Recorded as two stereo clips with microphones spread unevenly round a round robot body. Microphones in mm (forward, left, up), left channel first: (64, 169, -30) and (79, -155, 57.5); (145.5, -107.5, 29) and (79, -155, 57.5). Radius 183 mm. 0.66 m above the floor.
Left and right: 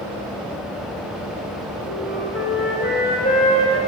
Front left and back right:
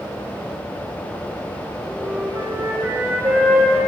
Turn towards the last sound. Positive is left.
turn(degrees=150)